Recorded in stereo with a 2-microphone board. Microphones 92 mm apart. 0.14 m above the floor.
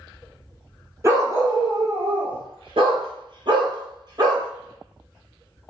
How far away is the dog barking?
About 1.3 m.